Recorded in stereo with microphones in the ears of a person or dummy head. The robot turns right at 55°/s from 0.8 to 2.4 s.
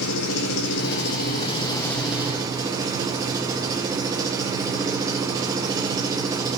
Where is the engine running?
110° left, 1.1 m; by 6.6 s 160° right, 1.1 m.